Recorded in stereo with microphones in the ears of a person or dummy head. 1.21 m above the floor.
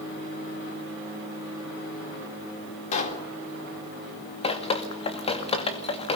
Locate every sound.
2.9 s a pop: 40° left (ahead or behind), 3.5 m
4.4 s dripping: 35° left (ahead or behind), 2.5 m